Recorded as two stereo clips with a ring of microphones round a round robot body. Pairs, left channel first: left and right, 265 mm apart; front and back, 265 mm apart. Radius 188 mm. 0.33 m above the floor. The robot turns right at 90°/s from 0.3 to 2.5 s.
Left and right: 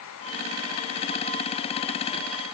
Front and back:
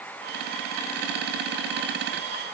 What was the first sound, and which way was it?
Only background noise.